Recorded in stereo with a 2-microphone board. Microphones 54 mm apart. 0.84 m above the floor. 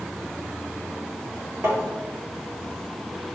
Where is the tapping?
55° right (ahead or behind), 1.6 m.